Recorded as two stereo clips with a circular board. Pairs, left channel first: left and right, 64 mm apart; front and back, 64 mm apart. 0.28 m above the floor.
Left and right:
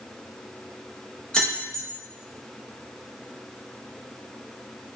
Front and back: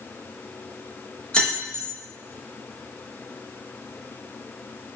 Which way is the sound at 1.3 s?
40° left.